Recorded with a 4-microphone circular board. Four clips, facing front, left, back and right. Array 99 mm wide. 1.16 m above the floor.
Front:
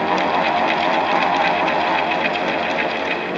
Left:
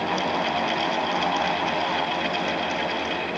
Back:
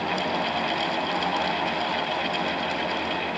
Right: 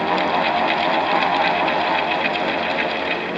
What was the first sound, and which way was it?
Only background noise.